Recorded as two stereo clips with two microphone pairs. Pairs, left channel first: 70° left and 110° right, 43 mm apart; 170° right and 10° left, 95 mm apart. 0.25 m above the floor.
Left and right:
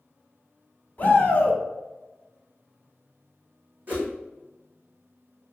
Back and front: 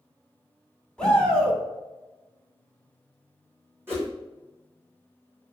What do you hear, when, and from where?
1.0 s a shout: 115° left, 1.4 m
3.9 s a whoosh: 55° right, 2 m